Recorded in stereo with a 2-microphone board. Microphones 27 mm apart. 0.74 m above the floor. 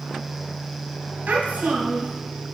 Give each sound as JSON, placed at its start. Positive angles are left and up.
{"t": 1.3, "sound": "a child speaking", "side_deg": -80, "distance_m": 3.0}